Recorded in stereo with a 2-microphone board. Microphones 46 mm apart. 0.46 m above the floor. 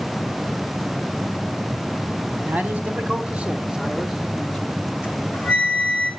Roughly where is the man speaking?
Right.